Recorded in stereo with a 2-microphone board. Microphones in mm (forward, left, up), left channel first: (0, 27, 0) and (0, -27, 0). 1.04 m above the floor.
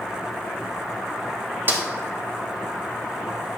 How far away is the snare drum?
About 1.4 m.